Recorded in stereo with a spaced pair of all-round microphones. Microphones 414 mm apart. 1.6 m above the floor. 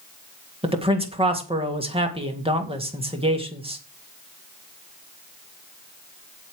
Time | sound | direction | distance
0.6 | a man speaking | 15° right (ahead or behind) | 2 m